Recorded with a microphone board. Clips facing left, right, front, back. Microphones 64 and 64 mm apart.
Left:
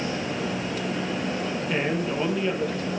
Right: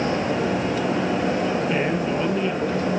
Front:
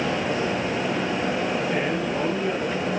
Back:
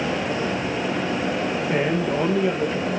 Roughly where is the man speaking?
Behind.